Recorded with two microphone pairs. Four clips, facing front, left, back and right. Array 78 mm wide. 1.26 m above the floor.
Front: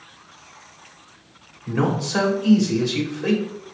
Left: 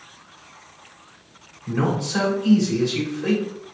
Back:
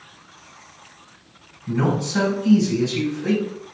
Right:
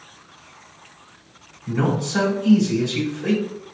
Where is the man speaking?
15° left, 1.9 m.